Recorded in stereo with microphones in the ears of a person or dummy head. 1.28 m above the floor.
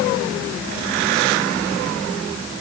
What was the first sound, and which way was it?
Only background noise.